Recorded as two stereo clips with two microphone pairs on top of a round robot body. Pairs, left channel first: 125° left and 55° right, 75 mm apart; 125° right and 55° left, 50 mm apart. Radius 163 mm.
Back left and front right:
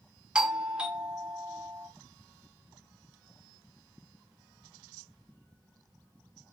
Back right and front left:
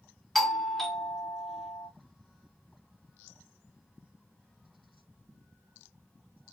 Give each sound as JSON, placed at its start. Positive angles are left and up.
{"t": 0.3, "sound": "a doorbell", "azimuth_deg": -30, "distance_m": 1.2}